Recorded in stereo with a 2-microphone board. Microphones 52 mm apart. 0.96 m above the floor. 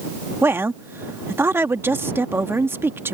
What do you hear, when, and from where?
0.4 s a woman speaking: 50° right (ahead or behind)